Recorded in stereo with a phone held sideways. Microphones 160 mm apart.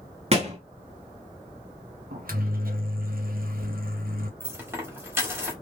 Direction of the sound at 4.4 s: 15° right (ahead or behind).